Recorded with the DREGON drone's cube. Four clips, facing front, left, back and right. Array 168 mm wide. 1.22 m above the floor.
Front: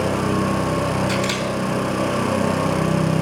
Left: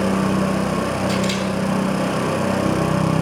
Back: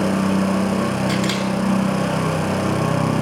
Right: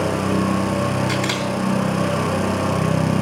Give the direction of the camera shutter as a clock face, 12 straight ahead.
4 o'clock.